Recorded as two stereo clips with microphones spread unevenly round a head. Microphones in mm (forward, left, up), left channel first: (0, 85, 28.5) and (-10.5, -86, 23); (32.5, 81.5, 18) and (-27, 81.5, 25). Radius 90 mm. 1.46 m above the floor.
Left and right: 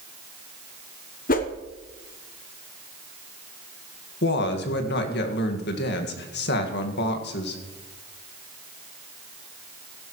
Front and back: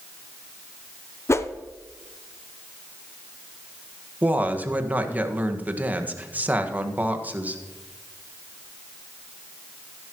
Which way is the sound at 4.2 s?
115° left.